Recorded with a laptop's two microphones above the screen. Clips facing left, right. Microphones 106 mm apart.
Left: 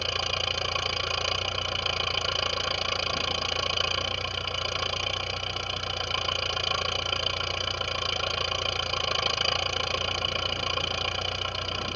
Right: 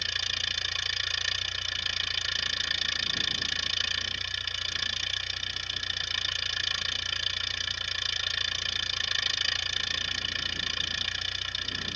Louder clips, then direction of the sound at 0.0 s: Left 9 dB; 60° left (ahead or behind).